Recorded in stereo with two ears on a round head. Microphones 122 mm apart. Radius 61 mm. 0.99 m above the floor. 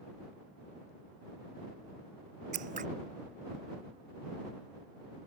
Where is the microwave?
No microwave in this recording.